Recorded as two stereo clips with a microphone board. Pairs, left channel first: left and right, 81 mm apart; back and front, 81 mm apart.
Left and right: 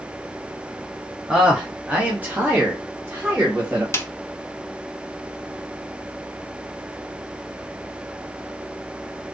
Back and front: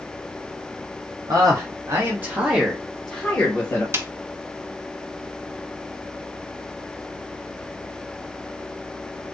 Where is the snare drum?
45° left, 0.5 m.